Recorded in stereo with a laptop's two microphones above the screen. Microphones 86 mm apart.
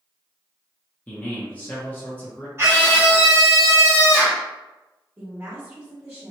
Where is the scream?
30° right (ahead or behind), 0.9 m.